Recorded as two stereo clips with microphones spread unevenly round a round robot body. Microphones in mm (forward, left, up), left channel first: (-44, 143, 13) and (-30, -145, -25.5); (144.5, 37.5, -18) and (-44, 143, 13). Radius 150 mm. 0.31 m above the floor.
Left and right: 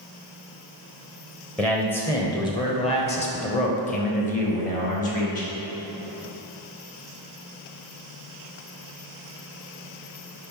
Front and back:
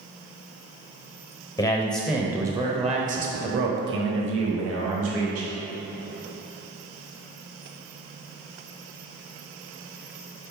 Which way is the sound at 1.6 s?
5° right.